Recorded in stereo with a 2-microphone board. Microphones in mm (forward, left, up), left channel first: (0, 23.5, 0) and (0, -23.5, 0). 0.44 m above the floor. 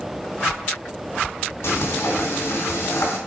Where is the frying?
70° left (ahead or behind), 3 m.